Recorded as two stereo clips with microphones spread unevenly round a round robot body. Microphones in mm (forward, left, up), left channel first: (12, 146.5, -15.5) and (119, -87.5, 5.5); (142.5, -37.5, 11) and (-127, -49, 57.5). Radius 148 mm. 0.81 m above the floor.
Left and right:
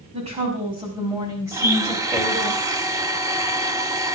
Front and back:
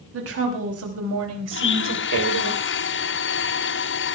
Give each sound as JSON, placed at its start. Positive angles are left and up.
{"t": 0.1, "sound": "a woman speaking", "azimuth_deg": -135, "distance_m": 6.5}
{"t": 1.5, "sound": "a blender", "azimuth_deg": 15, "distance_m": 1.5}